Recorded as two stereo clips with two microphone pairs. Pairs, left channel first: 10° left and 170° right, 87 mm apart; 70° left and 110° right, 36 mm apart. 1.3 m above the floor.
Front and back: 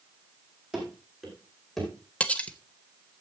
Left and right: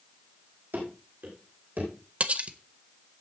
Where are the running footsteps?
85° right, 4 m; by 1.9 s 75° right, 4 m.